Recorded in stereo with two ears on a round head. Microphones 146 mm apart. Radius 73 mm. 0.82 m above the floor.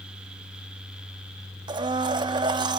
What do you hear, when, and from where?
1.7 s a blender: 30° right (ahead or behind), 0.9 m